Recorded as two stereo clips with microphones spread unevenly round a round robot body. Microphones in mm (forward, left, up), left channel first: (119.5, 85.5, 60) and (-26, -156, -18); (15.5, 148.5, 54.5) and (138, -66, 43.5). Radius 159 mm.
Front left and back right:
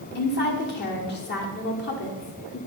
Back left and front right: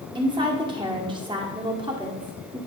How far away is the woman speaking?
About 1.7 m.